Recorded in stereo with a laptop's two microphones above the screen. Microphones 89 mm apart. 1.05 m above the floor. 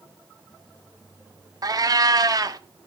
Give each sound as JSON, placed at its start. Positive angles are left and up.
{"t": 1.6, "sound": "a cat meowing", "side_deg": -45, "distance_m": 0.8}